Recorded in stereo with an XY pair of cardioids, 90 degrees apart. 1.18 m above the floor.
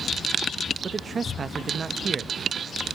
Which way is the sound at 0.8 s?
45° right.